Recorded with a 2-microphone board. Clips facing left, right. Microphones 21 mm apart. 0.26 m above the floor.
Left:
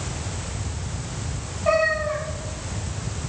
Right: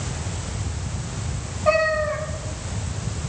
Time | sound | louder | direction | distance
1.6 | a cat meowing | right 1 dB | 5° right (ahead or behind) | 5 m